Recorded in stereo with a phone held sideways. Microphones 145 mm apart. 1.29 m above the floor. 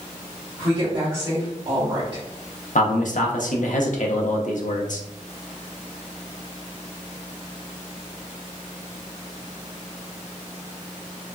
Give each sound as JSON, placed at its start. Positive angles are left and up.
{"t": 0.6, "sound": "a woman speaking", "side_deg": -35, "distance_m": 1.7}
{"t": 2.8, "sound": "a man speaking", "side_deg": 65, "distance_m": 0.6}